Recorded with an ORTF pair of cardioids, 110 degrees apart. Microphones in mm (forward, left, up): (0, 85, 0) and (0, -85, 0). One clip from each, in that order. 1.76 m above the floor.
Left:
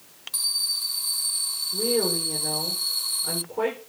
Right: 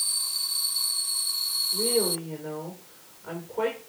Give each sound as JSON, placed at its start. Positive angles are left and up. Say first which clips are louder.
{"t": 1.7, "sound": "a woman speaking", "louder": "left 4 dB", "azimuth_deg": 15, "distance_m": 5.5}